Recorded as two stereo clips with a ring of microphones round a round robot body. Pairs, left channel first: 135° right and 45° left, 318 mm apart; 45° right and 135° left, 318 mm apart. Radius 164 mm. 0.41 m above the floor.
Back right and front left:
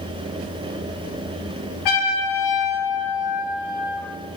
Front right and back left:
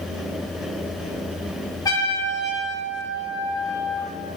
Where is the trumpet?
125° right, 5.5 m.